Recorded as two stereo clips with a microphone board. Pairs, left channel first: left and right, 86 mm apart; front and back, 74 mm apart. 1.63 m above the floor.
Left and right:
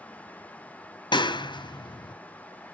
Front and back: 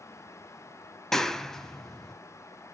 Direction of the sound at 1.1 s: 85° left.